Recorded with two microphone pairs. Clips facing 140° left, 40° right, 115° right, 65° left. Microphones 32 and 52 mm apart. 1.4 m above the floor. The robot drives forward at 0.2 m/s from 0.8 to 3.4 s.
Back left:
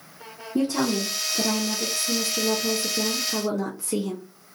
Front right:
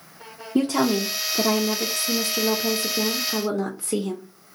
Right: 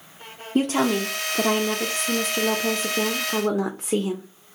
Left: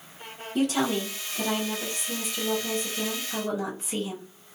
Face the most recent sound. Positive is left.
turn(degrees=-115)